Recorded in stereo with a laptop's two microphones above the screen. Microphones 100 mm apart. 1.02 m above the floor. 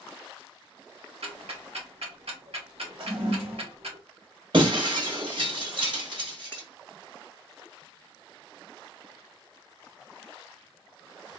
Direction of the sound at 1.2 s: 80° right.